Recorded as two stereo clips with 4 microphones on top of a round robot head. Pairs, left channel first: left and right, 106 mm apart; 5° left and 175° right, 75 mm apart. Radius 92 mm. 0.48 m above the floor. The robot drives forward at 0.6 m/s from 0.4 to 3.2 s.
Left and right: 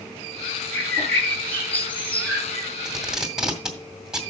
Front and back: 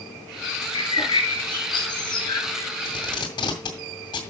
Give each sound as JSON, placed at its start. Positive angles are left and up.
{"t": 0.7, "sound": "a bird", "azimuth_deg": 15, "distance_m": 6.0}
{"t": 2.9, "sound": "tape being pulled", "azimuth_deg": -5, "distance_m": 2.5}